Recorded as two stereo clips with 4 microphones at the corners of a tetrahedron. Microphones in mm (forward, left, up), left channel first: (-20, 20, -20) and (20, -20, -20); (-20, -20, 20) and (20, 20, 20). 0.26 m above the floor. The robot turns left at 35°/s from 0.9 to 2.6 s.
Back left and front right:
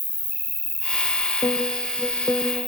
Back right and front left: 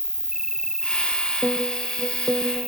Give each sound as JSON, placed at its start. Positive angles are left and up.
{"t": 0.0, "sound": "an insect", "azimuth_deg": 115}
{"t": 1.4, "sound": "a piano", "azimuth_deg": 120}